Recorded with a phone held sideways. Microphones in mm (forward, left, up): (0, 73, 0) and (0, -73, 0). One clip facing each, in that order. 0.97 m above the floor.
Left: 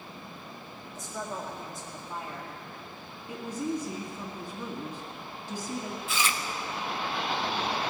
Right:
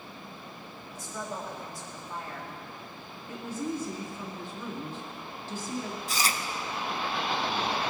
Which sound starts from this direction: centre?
A woman speaking, at 3.3 s.